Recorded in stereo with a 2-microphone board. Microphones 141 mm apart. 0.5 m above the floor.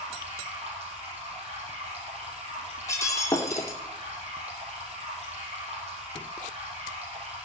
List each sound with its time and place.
0.0 s running water: 45° right (ahead or behind), 4 m
2.9 s breaking glass: 20° left (ahead or behind), 1.8 m